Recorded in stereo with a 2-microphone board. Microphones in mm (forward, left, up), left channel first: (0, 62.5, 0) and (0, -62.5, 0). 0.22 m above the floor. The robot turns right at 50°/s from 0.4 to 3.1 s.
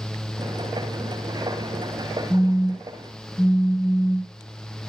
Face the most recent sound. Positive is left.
turn(degrees=-20)